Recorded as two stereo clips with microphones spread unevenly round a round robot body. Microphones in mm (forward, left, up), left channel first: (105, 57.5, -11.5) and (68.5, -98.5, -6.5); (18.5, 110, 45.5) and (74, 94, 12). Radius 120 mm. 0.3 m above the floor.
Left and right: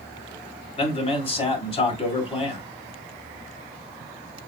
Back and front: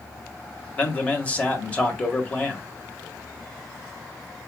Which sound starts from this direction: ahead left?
A man speaking, at 0.8 s.